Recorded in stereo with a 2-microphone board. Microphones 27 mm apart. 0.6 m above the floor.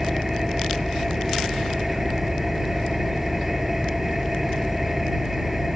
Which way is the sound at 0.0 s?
15° right (ahead or behind).